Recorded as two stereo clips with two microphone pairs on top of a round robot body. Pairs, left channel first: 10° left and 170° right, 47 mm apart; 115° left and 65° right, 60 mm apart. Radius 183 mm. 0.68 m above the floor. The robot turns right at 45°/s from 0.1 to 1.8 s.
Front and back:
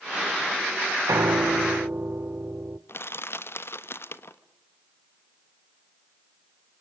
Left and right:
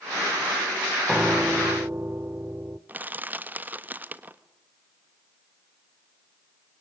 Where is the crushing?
15° right, 1.4 m.